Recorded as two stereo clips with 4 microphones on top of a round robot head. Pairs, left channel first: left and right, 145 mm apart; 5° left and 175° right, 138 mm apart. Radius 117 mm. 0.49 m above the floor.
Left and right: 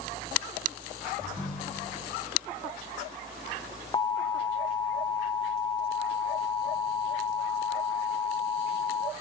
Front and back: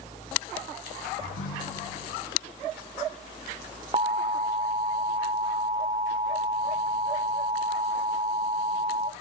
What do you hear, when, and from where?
1.2 s a ringtone: 5° left, 3.5 m
3.9 s an alarm: 145° left, 1.0 m